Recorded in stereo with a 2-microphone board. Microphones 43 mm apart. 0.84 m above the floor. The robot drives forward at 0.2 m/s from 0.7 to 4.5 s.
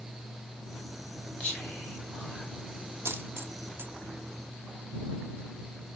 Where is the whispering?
40° left (ahead or behind), 2.0 m; by 2.5 s 35° left (ahead or behind), 2 m.